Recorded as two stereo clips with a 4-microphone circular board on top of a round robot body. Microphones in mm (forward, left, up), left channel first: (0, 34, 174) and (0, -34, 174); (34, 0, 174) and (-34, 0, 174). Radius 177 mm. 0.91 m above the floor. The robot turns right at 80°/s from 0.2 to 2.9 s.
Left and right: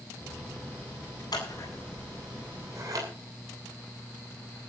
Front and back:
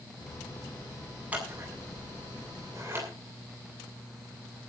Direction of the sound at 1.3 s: 110° left.